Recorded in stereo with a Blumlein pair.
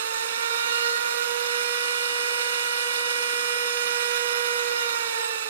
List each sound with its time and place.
0.0 s a machine running: 65° right, 1.8 m